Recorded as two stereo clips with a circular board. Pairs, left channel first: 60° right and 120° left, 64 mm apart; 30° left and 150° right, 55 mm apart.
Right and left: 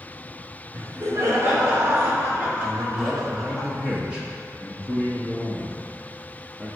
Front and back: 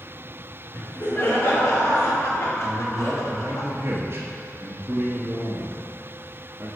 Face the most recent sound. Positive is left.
turn(degrees=-165)